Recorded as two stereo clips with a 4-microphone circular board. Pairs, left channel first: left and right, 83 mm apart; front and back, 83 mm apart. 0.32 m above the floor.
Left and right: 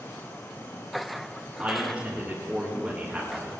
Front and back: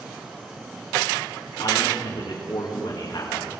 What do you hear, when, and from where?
1.6 s a man speaking: 15° right, 3.5 m